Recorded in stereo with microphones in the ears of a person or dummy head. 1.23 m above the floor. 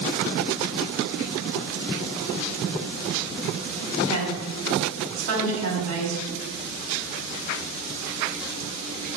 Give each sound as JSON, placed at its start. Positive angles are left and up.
{"t": 4.0, "sound": "a woman speaking", "side_deg": -85, "distance_m": 3.0}